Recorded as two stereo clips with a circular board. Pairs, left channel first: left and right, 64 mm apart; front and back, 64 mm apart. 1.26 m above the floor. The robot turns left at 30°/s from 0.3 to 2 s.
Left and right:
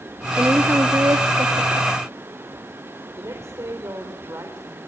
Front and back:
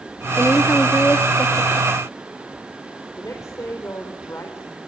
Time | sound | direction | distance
0.4 | a woman speaking | 35° right | 2 m
3.2 | a woman speaking | 45° right | 4 m